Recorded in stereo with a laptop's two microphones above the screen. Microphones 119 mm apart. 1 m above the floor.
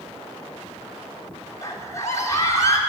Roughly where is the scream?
Left.